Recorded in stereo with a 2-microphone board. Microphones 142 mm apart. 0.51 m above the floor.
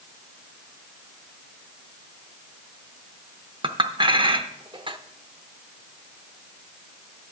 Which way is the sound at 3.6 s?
40° right (ahead or behind).